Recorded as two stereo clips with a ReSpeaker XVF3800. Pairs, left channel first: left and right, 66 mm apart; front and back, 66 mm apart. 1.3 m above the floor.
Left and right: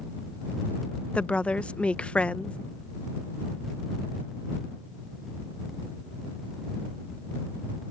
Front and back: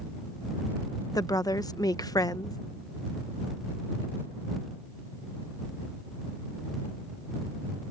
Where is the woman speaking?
20° left.